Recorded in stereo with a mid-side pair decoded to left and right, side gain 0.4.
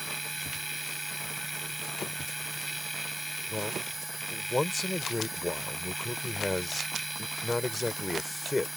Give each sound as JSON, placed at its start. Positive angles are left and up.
{"t": 0.0, "sound": "a machine running", "azimuth_deg": -5}
{"t": 3.5, "sound": "a man speaking", "azimuth_deg": 20}